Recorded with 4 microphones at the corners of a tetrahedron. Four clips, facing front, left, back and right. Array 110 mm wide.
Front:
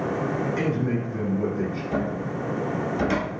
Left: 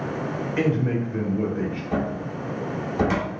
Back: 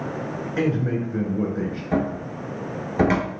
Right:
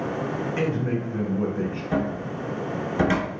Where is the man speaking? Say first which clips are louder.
Left 4 dB, back 2 dB; 170° right, 1.8 m.